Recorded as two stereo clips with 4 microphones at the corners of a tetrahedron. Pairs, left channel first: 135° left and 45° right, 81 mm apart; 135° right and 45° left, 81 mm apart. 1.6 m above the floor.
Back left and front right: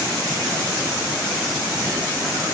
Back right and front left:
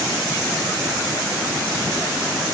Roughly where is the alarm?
I don't hear an alarm.